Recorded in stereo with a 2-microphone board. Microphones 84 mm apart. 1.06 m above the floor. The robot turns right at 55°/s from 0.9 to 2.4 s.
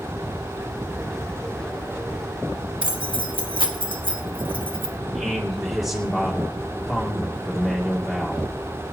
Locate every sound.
2.8 s keys jangling: 80° right, 1.5 m
5.1 s a man speaking: centre (ahead or behind), 2.5 m